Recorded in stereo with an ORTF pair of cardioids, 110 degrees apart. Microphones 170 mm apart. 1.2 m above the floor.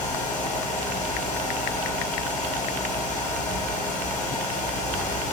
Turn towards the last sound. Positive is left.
turn(degrees=45)